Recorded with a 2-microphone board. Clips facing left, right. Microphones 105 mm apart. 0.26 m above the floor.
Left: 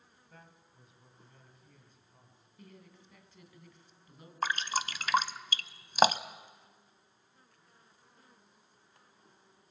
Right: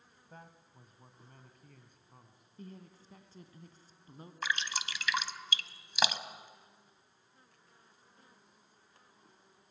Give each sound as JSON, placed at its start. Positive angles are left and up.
{"t": 0.3, "sound": "a man speaking", "side_deg": -35, "distance_m": 2.0}
{"t": 2.6, "sound": "a woman speaking", "side_deg": -35, "distance_m": 2.5}
{"t": 4.4, "sound": "dripping", "side_deg": 45, "distance_m": 0.7}